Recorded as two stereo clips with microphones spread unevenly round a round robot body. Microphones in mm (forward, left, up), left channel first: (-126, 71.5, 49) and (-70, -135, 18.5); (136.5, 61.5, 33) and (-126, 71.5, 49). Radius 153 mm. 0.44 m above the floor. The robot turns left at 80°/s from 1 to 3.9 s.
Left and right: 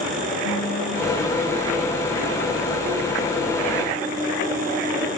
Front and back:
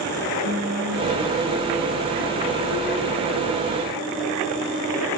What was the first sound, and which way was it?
Singing, 150° left.